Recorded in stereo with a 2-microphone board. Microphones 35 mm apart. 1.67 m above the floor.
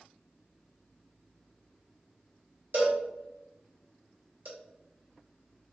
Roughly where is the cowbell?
Right.